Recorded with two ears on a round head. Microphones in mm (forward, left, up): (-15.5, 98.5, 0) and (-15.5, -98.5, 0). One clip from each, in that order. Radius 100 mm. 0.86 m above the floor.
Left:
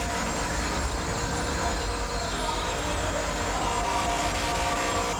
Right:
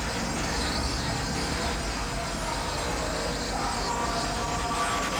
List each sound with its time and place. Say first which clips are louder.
0.0 s an insect: left 2 dB; 10° right (ahead or behind), 3 m